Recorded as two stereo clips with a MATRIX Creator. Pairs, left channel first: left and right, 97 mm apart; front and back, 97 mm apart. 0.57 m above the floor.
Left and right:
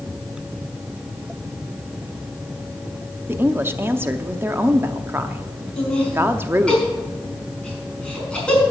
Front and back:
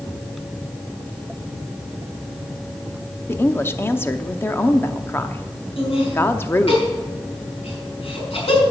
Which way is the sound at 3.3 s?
45° right.